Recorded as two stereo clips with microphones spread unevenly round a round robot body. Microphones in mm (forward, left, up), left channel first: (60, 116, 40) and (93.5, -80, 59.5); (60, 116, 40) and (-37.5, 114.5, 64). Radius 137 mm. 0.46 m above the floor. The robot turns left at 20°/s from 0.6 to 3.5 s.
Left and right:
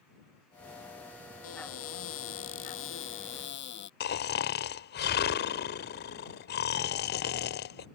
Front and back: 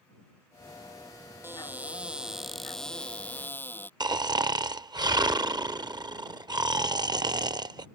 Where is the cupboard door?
115° left; by 3.9 s 75° left.